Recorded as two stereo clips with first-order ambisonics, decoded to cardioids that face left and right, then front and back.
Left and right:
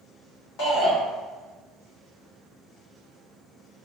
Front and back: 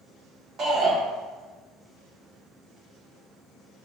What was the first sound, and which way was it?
A shout, 115° left.